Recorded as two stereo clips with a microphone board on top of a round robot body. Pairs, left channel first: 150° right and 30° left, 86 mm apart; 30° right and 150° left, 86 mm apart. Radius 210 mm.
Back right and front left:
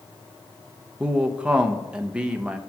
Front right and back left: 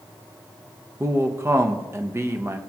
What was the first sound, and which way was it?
A man speaking, 105° left.